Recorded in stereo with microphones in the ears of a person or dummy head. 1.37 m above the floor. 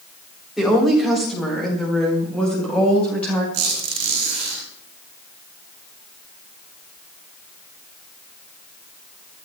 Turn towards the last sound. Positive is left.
turn(degrees=-55)  # may be behind; listen again after turning